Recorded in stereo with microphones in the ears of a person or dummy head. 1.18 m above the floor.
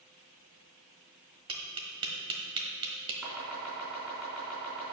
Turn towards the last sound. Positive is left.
turn(degrees=-5)  # may be behind; listen again after turning